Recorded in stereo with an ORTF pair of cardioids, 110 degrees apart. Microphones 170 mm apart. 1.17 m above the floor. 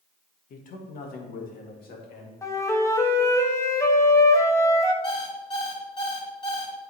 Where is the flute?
15° left, 1.0 m.